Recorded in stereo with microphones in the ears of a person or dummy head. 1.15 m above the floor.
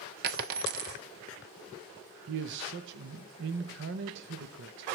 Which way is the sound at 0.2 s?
50° right (ahead or behind).